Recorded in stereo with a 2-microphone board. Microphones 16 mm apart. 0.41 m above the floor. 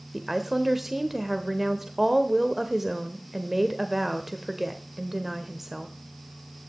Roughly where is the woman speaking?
Centre.